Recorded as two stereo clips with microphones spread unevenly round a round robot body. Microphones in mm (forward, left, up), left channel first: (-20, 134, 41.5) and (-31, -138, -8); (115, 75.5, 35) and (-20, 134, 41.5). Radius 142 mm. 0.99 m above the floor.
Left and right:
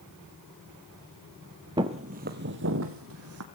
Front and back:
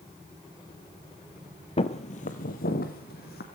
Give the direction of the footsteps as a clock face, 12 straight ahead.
12 o'clock.